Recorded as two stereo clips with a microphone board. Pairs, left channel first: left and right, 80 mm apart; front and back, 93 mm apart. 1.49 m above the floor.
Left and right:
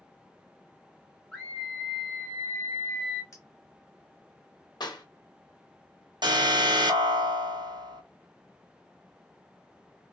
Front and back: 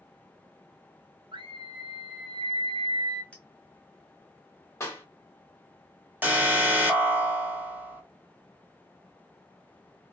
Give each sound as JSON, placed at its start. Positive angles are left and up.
{"t": 1.3, "sound": "a scream", "azimuth_deg": 175, "distance_m": 0.6}
{"t": 3.3, "sound": "a clink", "azimuth_deg": 70, "distance_m": 1.0}
{"t": 4.8, "sound": "a clap", "azimuth_deg": 60, "distance_m": 1.5}
{"t": 6.2, "sound": "an alarm", "azimuth_deg": -110, "distance_m": 1.1}